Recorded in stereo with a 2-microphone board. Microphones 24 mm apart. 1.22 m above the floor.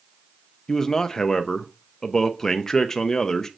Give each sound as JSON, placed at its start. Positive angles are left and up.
{"t": 0.7, "sound": "a man speaking", "side_deg": 25, "distance_m": 0.5}